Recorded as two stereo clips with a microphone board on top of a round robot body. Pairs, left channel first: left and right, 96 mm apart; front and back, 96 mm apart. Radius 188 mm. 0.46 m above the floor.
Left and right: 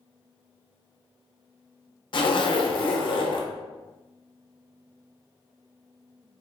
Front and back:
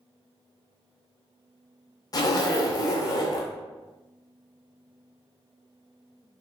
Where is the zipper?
50° left, 0.6 m.